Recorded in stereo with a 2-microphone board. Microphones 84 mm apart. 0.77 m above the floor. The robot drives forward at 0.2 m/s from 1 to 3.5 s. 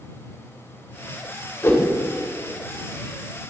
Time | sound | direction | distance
1.6 | a whoosh | 35° left (ahead or behind) | 1.9 m